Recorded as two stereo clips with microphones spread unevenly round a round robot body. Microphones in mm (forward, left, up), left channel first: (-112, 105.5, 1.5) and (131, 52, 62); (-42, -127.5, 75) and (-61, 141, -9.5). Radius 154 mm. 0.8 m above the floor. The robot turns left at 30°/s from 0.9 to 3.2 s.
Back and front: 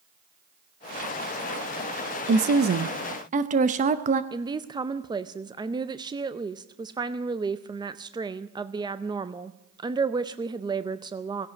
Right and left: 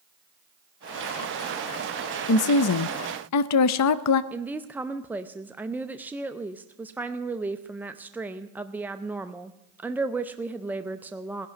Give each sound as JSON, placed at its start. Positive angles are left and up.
{"t": 2.3, "sound": "a woman speaking", "azimuth_deg": -50, "distance_m": 0.6}
{"t": 4.3, "sound": "a woman speaking", "azimuth_deg": 75, "distance_m": 0.6}